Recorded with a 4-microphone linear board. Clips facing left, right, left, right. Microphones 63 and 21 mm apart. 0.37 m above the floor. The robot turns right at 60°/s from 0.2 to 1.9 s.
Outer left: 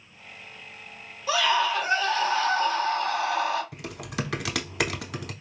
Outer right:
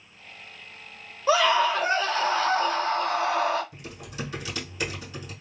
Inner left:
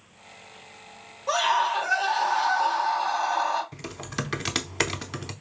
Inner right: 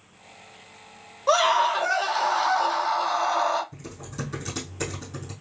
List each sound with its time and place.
1.3 s a scream: 90° right, 1.4 m; by 3.6 s 50° right, 1.4 m
3.7 s typing on a keyboard: 80° left, 0.5 m